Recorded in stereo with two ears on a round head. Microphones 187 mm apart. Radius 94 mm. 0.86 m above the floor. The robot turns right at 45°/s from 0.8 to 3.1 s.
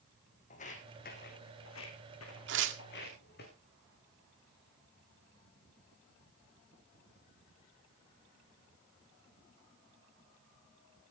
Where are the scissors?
I don't hear scissors.